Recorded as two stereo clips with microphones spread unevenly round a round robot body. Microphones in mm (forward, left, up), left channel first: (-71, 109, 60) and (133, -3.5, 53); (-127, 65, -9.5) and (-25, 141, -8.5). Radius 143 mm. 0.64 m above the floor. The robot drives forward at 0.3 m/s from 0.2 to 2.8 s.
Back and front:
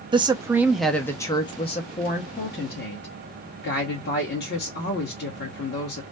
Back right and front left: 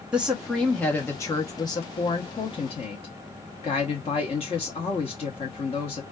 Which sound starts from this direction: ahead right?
A woman speaking, at 0.1 s.